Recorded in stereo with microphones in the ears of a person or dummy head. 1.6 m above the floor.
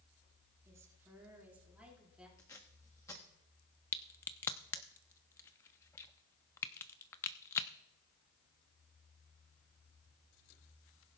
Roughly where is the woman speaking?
Centre.